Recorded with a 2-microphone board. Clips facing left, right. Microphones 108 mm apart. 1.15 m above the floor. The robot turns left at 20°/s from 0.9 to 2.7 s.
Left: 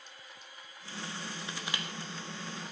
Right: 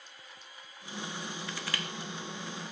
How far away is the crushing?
About 0.6 m.